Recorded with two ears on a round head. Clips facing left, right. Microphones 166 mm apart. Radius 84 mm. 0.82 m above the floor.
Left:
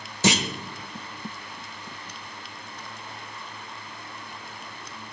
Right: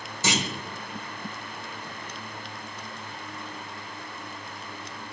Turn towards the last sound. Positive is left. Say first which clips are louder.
# left 5 dB
turn(degrees=55)  # may be behind; listen again after turning